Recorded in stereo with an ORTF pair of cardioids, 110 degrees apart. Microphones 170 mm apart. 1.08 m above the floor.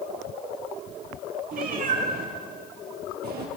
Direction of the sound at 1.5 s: 55° right.